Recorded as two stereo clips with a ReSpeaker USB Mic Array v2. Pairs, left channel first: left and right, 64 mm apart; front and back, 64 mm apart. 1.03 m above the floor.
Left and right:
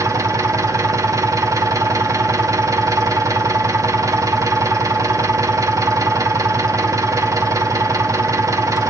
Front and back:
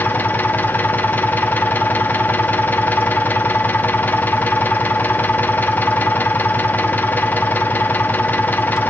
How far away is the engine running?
About 1.2 m.